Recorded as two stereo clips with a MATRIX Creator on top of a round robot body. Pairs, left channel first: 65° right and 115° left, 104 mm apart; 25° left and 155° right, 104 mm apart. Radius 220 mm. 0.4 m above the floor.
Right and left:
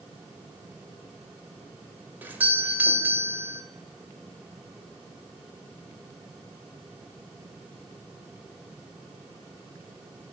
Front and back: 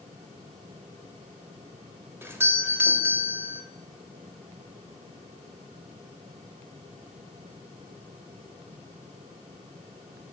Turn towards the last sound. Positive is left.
turn(degrees=165)